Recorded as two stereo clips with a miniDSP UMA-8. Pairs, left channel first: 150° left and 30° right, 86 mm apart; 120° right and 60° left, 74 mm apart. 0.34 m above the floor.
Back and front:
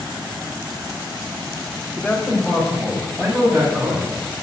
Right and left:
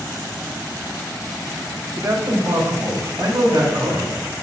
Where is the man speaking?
75° left, 1.5 m; by 4.1 s 10° left, 2.5 m.